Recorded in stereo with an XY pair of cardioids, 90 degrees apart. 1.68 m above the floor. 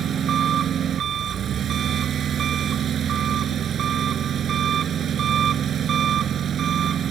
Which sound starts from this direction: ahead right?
An engine running, at 0.0 s.